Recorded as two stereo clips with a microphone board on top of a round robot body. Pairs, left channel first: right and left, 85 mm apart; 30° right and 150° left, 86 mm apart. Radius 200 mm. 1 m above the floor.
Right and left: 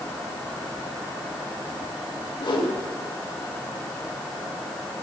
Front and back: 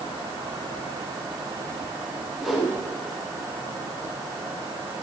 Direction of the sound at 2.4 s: 125° right.